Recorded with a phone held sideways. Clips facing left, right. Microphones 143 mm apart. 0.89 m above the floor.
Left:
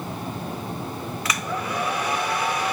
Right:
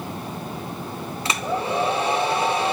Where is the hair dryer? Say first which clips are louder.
Right 5 dB; 25° right (ahead or behind), 0.6 m.